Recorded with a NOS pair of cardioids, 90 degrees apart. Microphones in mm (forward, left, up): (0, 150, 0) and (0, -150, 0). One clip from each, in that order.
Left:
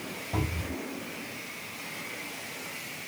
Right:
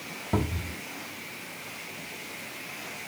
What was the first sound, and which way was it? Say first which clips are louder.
A cupboard door: right 3 dB; 55° right.